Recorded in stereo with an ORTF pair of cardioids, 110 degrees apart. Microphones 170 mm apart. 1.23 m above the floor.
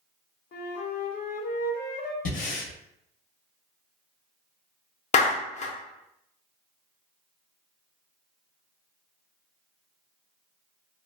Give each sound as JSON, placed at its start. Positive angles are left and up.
{"t": 0.5, "sound": "a flute", "azimuth_deg": 65, "distance_m": 0.6}
{"t": 2.2, "sound": "breathing", "azimuth_deg": 50, "distance_m": 0.7}
{"t": 5.1, "sound": "a clap", "azimuth_deg": 45, "distance_m": 0.6}